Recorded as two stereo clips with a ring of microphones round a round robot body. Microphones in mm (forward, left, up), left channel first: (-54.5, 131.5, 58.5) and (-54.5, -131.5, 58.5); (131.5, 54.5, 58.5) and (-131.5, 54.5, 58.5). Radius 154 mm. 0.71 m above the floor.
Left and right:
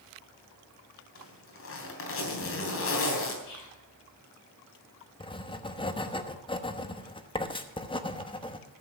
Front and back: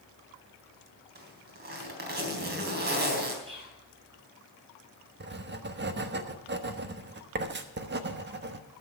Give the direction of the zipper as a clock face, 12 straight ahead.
8 o'clock.